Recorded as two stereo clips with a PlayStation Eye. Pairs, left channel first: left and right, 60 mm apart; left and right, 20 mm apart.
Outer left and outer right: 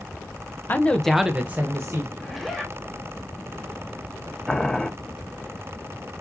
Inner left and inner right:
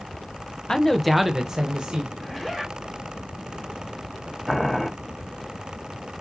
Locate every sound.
0.7 s a man speaking: 35° left (ahead or behind), 0.7 m; by 2.1 s 50° right (ahead or behind), 1.1 m
2.2 s a zipper: centre (ahead or behind), 1.1 m
4.5 s boiling: 10° left (ahead or behind), 0.7 m